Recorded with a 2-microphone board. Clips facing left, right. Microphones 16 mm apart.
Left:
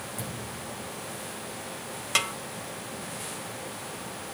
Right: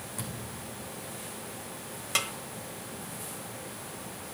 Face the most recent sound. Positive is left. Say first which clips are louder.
# left 4 dB
turn(degrees=15)  # may be behind; listen again after turning